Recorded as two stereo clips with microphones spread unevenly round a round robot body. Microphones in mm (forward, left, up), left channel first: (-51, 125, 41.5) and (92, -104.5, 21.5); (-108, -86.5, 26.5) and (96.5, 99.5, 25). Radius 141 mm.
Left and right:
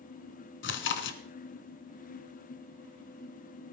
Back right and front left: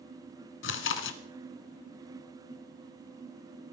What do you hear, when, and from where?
0.6 s chewing: 175° left, 1.4 m